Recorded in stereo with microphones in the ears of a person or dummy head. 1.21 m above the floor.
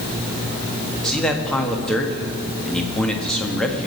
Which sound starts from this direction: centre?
A man speaking, at 1.0 s.